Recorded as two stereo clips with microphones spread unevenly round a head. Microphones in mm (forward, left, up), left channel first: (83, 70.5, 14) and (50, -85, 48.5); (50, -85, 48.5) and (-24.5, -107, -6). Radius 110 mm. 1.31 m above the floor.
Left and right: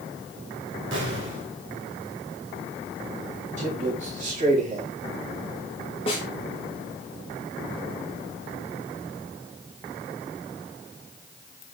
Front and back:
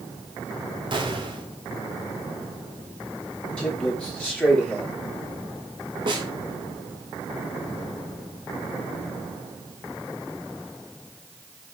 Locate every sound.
0.9 s an explosion: 130° right, 2.5 m
3.6 s a man speaking: 60° right, 4.5 m
6.1 s a snare drum: 145° left, 1.5 m